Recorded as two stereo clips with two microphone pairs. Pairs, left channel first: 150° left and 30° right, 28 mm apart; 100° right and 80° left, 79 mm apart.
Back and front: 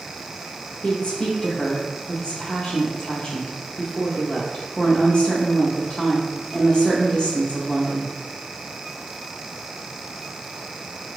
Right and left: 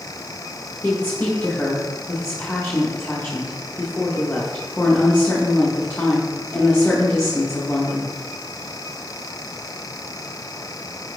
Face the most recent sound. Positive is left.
turn(degrees=-165)